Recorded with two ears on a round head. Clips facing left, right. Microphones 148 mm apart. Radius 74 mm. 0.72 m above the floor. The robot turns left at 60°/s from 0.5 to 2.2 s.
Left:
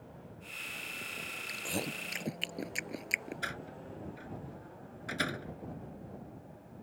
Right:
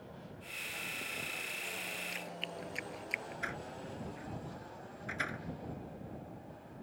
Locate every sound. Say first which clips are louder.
1.5 s chewing: left 7 dB; 75° left (ahead or behind); by 3.4 s 60° left (ahead or behind)
3.4 s a door slam: even; 45° left (ahead or behind)